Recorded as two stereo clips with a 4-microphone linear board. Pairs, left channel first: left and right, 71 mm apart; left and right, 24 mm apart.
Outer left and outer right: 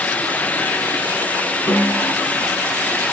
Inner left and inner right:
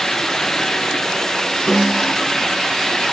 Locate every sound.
1.7 s a snare drum: 60° left (ahead or behind), 3 m